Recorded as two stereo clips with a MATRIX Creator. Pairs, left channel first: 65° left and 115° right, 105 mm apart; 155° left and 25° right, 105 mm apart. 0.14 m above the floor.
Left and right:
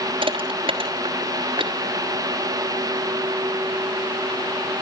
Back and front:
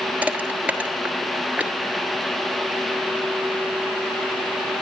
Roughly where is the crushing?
Right.